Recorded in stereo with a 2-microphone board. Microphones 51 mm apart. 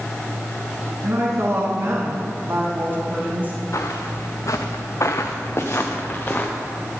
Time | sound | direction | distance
1.0 | a woman speaking | 65° right (ahead or behind) | 4 m
3.7 | footsteps | 70° left (ahead or behind) | 1.7 m